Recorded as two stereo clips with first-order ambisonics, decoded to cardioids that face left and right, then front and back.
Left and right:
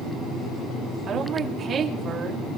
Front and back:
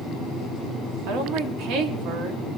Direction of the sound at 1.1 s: 150° right.